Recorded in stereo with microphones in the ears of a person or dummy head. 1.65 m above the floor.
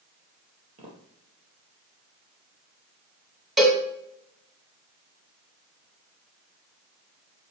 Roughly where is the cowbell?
Centre.